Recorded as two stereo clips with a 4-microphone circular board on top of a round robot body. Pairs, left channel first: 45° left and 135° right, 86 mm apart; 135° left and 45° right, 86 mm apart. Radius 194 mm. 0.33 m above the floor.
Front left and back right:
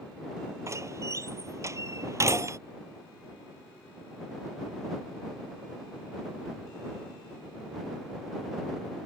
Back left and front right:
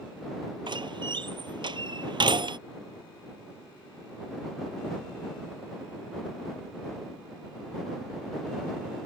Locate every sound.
0.7 s a door slam: 80° right